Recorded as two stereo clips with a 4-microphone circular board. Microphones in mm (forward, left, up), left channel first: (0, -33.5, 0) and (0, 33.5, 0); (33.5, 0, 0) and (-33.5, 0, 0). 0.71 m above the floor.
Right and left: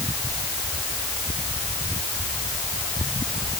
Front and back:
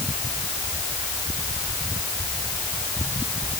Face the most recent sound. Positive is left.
No sound to turn to.